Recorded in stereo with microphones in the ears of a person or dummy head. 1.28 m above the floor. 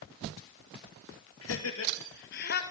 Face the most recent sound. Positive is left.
turn(degrees=55)  # may be behind; listen again after turning